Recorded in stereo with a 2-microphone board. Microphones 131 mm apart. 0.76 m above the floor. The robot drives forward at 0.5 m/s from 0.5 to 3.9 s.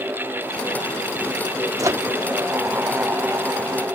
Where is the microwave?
25° right (ahead or behind).